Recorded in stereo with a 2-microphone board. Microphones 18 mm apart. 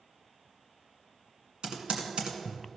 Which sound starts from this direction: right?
Typing on a keyboard, at 1.6 s.